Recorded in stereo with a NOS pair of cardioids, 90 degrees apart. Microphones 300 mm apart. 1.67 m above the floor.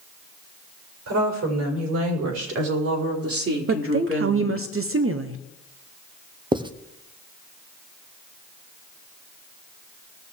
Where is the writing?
15° right, 1.0 m.